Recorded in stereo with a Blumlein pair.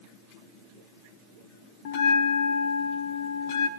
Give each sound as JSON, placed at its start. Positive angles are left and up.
{"t": 1.9, "sound": "a bell", "azimuth_deg": 50, "distance_m": 1.6}